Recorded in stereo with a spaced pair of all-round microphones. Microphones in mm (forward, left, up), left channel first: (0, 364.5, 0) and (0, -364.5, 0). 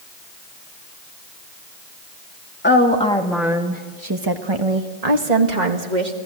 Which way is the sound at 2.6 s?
15° left (ahead or behind).